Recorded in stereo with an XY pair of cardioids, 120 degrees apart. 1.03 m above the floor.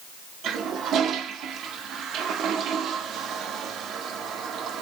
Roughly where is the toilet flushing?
Ahead right.